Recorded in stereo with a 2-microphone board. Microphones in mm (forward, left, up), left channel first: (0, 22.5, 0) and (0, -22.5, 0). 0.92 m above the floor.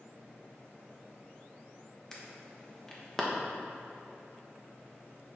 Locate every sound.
2.1 s an alarm: 15° left (ahead or behind), 1.4 m